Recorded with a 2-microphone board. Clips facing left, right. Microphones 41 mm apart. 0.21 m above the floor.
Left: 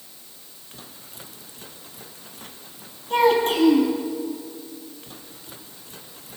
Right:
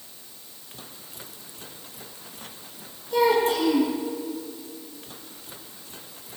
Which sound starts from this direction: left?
A child speaking, at 3.1 s.